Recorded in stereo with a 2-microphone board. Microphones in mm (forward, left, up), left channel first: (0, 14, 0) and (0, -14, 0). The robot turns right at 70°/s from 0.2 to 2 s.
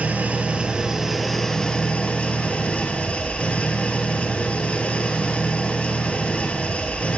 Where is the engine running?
75° right, 0.8 m; by 7.2 s 55° left, 0.8 m.